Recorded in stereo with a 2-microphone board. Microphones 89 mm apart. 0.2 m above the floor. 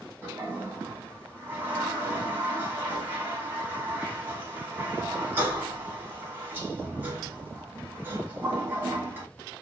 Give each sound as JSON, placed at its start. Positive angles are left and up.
{"t": 0.2, "sound": "a toilet flushing", "side_deg": -25, "distance_m": 1.0}